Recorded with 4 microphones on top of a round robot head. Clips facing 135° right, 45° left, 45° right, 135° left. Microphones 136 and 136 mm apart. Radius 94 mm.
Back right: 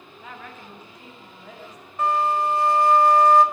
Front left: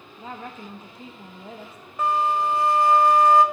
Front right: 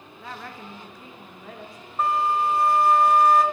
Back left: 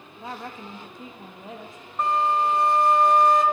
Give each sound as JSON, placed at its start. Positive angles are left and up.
{"t": 0.2, "sound": "a woman speaking", "azimuth_deg": 85, "distance_m": 0.9}
{"t": 2.0, "sound": "a flute", "azimuth_deg": 45, "distance_m": 0.6}